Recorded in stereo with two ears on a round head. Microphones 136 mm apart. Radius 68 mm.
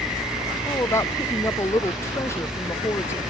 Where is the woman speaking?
20° left (ahead or behind).